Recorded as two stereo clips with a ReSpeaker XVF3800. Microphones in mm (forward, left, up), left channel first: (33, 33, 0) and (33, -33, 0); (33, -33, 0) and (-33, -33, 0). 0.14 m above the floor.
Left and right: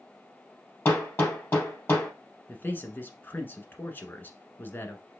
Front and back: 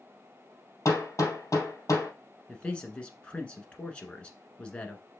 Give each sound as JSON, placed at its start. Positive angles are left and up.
{"t": 0.8, "sound": "hammering", "azimuth_deg": 35, "distance_m": 3.0}
{"t": 2.5, "sound": "a man speaking", "azimuth_deg": 60, "distance_m": 1.3}